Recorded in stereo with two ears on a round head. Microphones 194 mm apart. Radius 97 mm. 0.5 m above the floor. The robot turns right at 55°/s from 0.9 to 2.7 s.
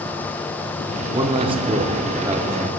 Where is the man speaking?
20° right (ahead or behind), 0.8 m; by 2.7 s 15° right (ahead or behind), 0.8 m.